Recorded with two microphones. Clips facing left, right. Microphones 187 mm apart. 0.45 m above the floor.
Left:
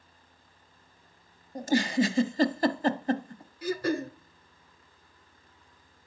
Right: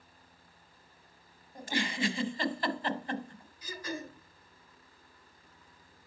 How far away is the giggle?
About 0.9 m.